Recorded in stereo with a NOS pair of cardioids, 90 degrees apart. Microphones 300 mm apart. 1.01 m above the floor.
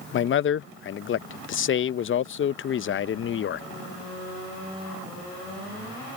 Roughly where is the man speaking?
Ahead left.